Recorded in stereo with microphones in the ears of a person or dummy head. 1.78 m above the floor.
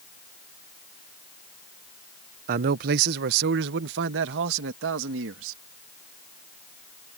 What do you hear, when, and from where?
2.5 s a man speaking: 50° right (ahead or behind); by 5.6 s 75° right (ahead or behind)